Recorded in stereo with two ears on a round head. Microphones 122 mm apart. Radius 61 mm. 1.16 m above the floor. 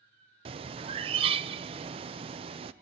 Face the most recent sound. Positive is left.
turn(degrees=-40)  # may be behind; listen again after turning